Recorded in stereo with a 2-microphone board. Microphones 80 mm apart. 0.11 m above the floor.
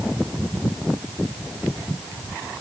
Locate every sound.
Only background noise.